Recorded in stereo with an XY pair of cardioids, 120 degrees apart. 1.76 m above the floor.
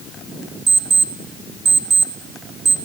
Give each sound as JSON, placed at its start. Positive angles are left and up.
{"t": 0.7, "sound": "an alarm clock", "azimuth_deg": -35, "distance_m": 3.5}